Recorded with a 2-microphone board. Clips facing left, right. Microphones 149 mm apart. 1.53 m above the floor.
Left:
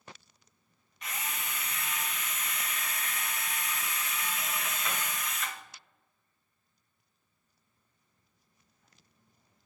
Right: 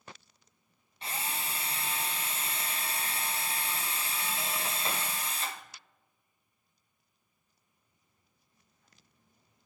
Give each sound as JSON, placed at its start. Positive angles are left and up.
{"t": 1.0, "sound": "a drill", "side_deg": -30, "distance_m": 0.7}